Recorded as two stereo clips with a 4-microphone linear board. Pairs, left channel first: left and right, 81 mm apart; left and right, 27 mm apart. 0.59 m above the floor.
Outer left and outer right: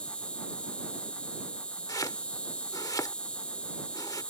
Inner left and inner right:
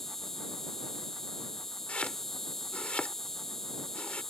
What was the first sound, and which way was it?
An insect, 15° left (ahead or behind).